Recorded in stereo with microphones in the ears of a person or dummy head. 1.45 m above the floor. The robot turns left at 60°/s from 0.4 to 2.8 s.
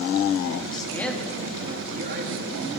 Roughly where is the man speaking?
Ahead left.